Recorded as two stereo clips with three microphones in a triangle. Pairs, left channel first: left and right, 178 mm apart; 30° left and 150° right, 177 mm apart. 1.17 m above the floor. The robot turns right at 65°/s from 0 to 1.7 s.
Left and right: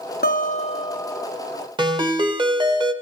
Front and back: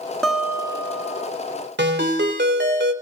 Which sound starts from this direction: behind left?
A guitar, at 0.2 s.